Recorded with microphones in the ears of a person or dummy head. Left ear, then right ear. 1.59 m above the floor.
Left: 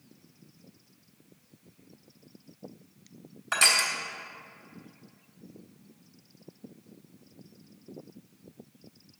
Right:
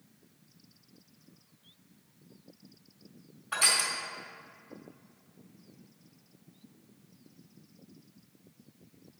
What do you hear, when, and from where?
3.5 s crushing: 65° left (ahead or behind), 2.5 m